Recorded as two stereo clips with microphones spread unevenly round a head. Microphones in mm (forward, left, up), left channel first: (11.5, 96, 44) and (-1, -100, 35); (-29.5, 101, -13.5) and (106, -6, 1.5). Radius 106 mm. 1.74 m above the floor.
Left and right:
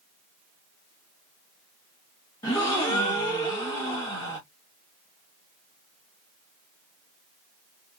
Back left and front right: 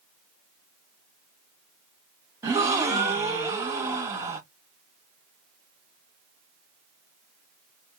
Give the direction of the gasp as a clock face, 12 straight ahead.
11 o'clock.